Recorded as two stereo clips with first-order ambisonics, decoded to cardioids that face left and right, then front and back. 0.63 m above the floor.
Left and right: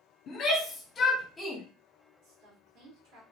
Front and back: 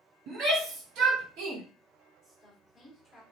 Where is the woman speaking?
80° right, 2 m.